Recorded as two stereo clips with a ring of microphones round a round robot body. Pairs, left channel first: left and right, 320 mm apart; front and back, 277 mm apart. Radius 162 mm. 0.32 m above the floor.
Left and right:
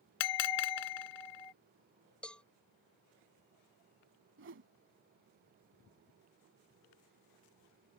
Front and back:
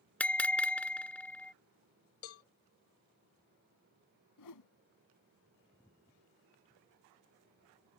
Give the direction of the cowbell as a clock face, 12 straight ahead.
12 o'clock.